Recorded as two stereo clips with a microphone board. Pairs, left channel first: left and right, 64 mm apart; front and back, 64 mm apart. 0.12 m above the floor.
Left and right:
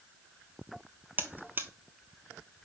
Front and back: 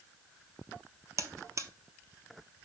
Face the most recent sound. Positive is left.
turn(degrees=-145)